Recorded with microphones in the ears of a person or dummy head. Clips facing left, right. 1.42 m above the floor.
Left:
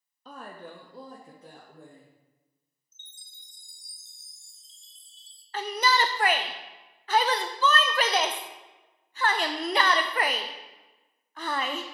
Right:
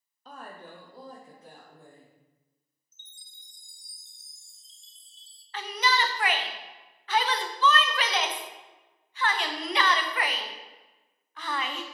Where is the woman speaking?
80° left, 0.6 m; by 2.1 s 70° left (ahead or behind), 1.6 m.